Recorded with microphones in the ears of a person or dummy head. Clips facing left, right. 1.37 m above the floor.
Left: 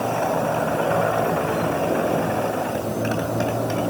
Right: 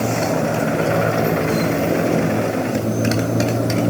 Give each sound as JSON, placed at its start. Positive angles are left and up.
{"t": 0.0, "sound": "a motorcycle", "side_deg": -35}